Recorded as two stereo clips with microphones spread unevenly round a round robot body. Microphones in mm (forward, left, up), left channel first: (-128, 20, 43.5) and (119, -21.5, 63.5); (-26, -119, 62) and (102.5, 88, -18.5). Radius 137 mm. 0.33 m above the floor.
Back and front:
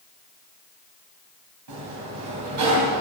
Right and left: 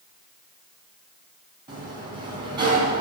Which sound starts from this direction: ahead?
A sliding door, at 1.7 s.